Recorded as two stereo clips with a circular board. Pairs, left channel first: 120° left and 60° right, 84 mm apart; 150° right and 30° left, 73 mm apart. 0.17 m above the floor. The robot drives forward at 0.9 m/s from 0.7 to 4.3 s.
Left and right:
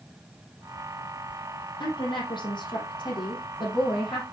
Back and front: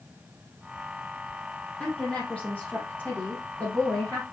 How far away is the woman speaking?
About 4.5 m.